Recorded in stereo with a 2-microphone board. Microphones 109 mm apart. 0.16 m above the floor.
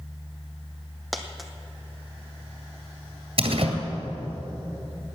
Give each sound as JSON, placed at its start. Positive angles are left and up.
{"t": 1.1, "sound": "a dropped coin", "side_deg": 0, "distance_m": 1.1}
{"t": 3.4, "sound": "a door slam", "side_deg": -60, "distance_m": 2.0}